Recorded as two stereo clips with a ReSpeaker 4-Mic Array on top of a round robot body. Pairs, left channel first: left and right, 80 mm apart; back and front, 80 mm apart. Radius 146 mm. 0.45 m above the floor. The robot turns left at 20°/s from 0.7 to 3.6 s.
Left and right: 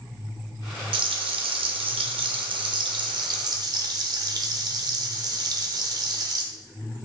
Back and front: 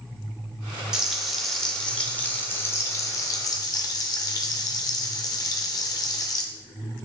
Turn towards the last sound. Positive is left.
turn(degrees=-135)